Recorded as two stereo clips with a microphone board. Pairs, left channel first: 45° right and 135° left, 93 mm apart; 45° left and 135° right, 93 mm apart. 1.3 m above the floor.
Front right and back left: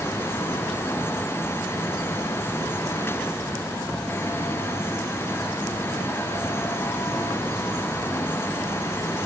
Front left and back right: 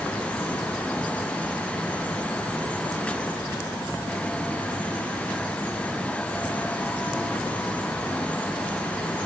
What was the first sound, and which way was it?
Only background noise.